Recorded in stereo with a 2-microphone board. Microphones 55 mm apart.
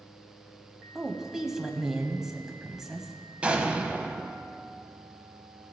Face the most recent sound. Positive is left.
turn(degrees=-25)  # may be behind; listen again after turning